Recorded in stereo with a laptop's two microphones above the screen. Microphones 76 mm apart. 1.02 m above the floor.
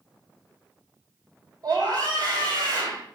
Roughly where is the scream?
Right.